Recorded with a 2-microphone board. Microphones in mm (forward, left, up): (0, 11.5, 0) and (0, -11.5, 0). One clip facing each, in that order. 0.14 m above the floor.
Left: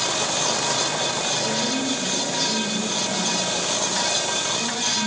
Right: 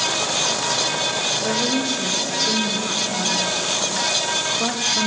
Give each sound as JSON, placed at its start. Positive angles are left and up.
{"t": 1.4, "sound": "a woman speaking", "side_deg": -65, "distance_m": 6.0}